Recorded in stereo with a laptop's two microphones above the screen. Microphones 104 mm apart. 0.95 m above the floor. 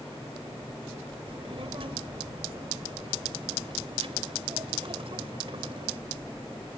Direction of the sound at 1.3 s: 60° right (ahead or behind).